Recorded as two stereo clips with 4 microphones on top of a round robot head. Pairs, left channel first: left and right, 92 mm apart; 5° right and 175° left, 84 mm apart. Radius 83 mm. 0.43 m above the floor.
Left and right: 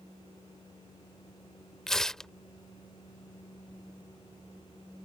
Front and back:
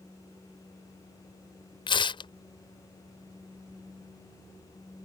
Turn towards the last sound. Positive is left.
turn(degrees=5)